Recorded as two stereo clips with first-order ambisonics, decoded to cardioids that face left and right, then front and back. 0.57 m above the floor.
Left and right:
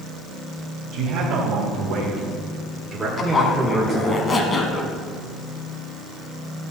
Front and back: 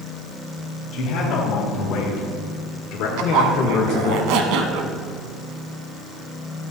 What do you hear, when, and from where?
0.9 s a man speaking: 50° right, 3 m; by 4.2 s 25° left, 1.3 m
3.2 s a zipper: 160° left, 1.0 m